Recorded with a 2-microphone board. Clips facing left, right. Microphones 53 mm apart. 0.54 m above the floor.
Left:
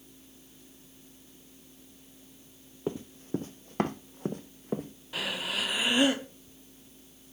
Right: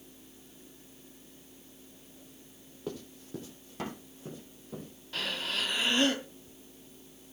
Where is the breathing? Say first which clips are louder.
Left 1 dB; 10° left (ahead or behind), 0.6 m.